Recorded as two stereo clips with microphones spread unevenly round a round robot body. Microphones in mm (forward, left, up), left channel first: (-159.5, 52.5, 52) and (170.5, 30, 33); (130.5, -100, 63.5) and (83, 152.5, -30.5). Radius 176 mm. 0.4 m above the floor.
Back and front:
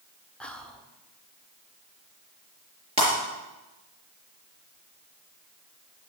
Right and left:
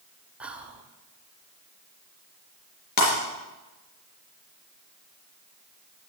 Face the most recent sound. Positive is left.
turn(degrees=-80)